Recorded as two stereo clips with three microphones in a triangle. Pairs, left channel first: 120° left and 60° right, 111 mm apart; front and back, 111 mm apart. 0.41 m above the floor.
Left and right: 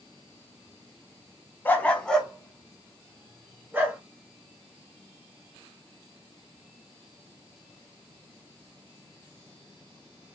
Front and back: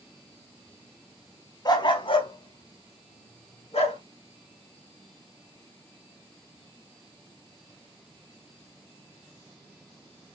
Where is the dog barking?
50° left, 1.0 m; by 4.0 s 10° left, 2.0 m.